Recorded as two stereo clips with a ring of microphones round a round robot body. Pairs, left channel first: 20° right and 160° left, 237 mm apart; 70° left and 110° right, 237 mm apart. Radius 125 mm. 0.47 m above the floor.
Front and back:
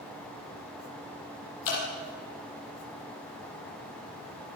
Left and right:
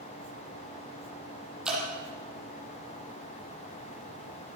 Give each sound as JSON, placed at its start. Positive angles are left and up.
{"t": 1.6, "sound": "dripping", "azimuth_deg": -25, "distance_m": 7.0}